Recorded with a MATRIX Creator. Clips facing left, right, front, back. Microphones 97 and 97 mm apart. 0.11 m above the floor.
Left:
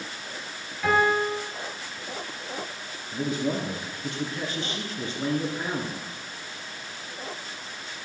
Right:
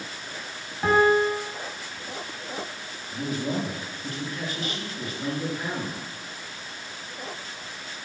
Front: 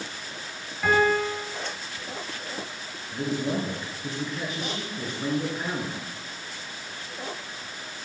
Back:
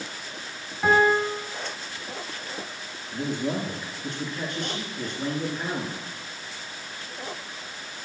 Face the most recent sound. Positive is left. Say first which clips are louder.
# left 1 dB, even
turn(degrees=80)